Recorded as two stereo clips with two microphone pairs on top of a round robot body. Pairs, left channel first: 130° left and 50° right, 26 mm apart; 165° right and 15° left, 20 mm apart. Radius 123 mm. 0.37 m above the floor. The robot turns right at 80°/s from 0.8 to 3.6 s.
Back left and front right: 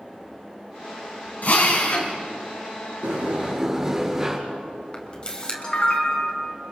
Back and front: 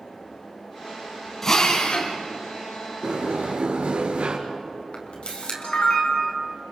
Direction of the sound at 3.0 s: 20° right.